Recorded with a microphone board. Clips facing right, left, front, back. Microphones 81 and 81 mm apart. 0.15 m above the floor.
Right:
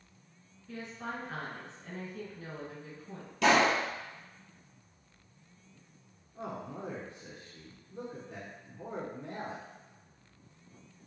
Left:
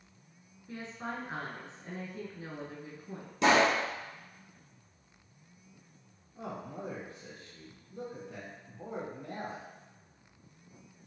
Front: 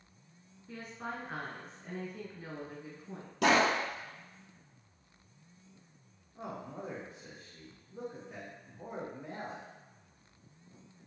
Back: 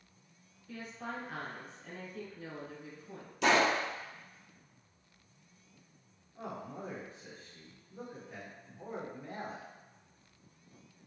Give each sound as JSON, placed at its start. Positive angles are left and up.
{"t": 0.7, "sound": "a woman speaking", "azimuth_deg": 30, "distance_m": 1.8}
{"t": 3.4, "sound": "a pop", "azimuth_deg": 20, "distance_m": 1.6}
{"t": 6.3, "sound": "a man speaking", "azimuth_deg": -65, "distance_m": 1.1}